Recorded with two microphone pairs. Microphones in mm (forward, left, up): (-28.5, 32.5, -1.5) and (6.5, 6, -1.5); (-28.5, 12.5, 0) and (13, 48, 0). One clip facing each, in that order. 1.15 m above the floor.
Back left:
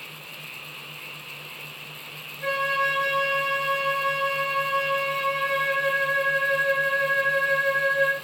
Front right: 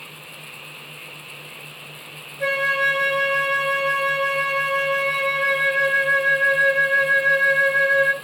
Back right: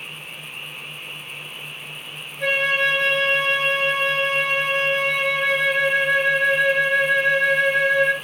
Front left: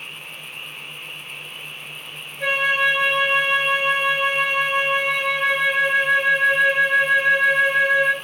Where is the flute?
40° right, 0.5 m.